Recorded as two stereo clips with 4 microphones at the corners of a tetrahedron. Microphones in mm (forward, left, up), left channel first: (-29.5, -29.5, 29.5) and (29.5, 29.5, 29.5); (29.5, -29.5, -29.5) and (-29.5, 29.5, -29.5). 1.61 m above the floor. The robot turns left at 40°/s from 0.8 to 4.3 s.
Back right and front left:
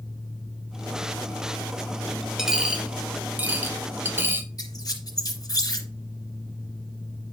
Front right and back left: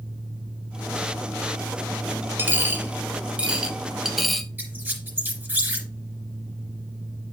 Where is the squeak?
165° right, 2.5 m.